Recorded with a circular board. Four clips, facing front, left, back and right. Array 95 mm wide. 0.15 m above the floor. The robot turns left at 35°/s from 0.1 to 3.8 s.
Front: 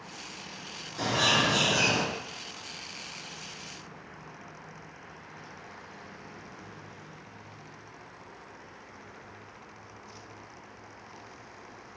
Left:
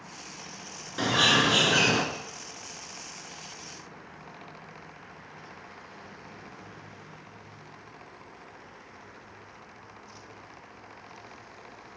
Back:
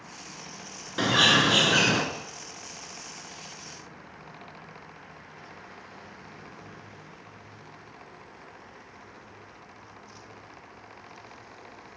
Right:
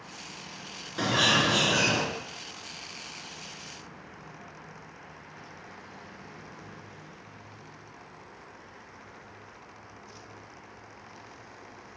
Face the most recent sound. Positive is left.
turn(degrees=75)